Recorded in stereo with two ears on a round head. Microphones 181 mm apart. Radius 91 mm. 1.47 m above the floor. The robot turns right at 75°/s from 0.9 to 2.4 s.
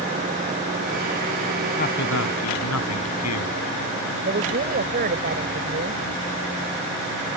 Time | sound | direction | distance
1.8 | a man speaking | 35° left | ?
4.2 | a woman speaking | 45° right (ahead or behind) | ?